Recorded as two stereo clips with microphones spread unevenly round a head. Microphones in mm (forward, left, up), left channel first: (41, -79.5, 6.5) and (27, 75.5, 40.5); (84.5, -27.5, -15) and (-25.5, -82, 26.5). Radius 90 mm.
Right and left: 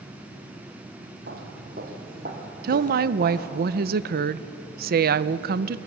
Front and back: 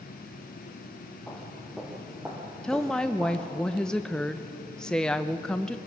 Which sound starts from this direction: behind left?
Footsteps, at 1.3 s.